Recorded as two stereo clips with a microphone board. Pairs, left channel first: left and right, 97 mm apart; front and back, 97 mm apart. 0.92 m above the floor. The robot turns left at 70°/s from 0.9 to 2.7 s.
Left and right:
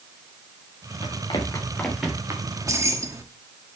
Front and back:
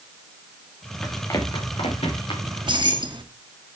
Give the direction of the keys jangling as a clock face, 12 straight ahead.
4 o'clock.